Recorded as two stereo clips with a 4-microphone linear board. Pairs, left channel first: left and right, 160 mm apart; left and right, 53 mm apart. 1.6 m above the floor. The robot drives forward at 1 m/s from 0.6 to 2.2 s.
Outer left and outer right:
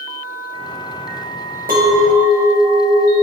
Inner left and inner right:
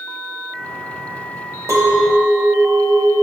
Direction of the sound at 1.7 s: 60° right (ahead or behind).